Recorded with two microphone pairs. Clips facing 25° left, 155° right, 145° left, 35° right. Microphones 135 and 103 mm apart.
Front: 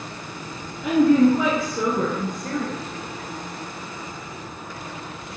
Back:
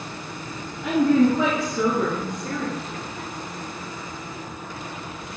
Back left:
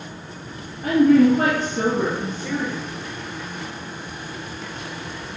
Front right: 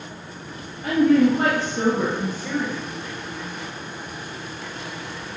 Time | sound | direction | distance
0.8 | a woman speaking | 105° left | 1.9 m